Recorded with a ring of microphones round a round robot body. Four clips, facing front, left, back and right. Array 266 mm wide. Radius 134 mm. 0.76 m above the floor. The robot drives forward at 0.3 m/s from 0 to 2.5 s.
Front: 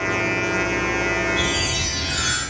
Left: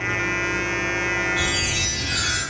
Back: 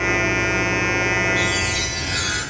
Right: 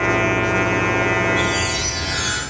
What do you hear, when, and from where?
1.4 s a chime: 110° right, 0.9 m; by 2.4 s 135° right, 1.0 m